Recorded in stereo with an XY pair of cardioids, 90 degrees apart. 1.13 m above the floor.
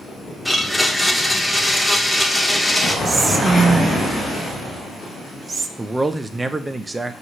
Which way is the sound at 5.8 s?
20° right.